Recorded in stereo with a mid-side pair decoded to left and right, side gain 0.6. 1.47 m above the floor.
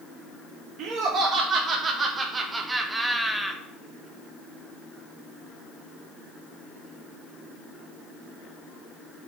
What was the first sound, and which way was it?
Laughter, 50° right.